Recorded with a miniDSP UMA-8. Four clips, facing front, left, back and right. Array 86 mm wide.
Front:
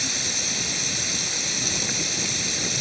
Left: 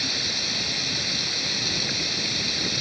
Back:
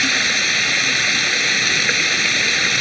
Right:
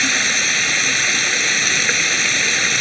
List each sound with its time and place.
0.0 s running water: 135° right